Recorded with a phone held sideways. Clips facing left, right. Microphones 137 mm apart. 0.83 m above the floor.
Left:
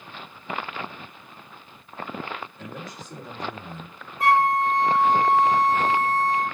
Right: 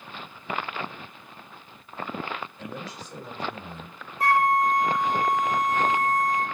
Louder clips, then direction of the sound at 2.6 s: Right 1 dB; 45° left (ahead or behind).